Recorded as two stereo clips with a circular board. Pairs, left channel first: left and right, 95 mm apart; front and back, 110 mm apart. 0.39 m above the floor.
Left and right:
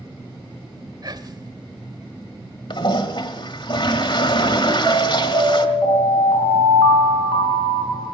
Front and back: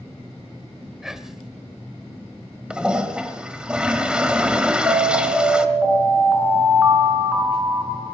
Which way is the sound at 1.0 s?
95° right.